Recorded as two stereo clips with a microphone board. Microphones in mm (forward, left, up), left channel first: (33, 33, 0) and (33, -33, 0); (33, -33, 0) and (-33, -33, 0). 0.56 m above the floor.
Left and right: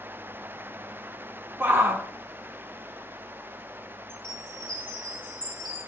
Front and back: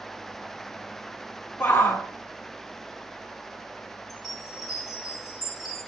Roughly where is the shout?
Ahead right.